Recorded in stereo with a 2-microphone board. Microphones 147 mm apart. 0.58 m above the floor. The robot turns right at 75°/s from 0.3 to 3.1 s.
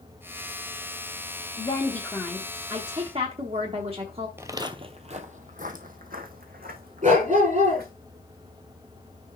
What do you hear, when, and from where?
1.6 s a woman speaking: 130° left, 1.0 m; by 4.3 s 115° right, 1.0 m
4.4 s footsteps: 15° right (ahead or behind), 0.6 m; by 7.9 s 80° right, 2.5 m
7.0 s a dog barking: 50° right (ahead or behind), 3 m